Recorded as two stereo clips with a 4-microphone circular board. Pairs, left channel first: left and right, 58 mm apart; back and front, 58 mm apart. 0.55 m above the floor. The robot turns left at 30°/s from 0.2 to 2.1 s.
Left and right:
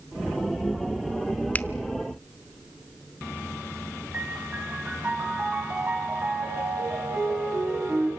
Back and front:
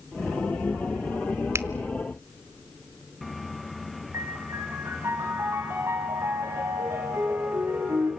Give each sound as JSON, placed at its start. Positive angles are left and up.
{"t": 1.6, "sound": "a finger snap", "azimuth_deg": 30, "distance_m": 0.8}
{"t": 4.1, "sound": "a piano", "azimuth_deg": -35, "distance_m": 5.5}